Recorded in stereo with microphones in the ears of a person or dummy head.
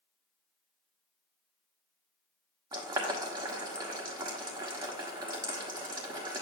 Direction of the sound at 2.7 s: 20° right (ahead or behind).